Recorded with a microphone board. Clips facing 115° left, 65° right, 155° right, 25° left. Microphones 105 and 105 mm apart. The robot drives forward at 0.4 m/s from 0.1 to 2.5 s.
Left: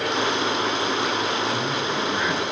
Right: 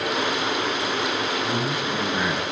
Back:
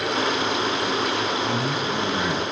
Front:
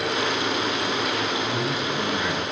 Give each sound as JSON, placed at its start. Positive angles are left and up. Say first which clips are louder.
{"t": 1.4, "sound": "a man speaking", "louder": "even, back 1 dB", "azimuth_deg": -140, "distance_m": 4.0}